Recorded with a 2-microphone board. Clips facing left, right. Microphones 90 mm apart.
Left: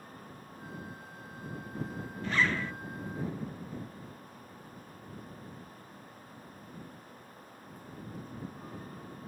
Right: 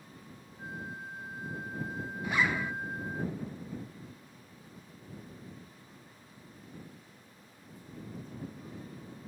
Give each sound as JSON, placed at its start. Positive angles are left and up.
{"t": 0.6, "sound": "a flute", "side_deg": -55}
{"t": 2.2, "sound": "a zipper", "side_deg": -15}